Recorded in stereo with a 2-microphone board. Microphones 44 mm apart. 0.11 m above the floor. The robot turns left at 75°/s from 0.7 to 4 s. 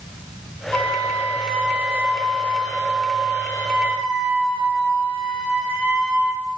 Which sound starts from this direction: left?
A flute, at 0.7 s.